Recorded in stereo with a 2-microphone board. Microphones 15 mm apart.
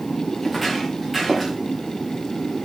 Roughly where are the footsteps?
Centre.